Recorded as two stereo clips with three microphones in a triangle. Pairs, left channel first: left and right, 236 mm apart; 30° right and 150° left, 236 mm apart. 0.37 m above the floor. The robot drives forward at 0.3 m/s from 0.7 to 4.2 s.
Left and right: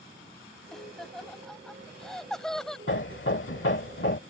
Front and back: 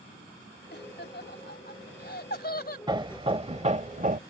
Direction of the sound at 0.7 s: Straight ahead.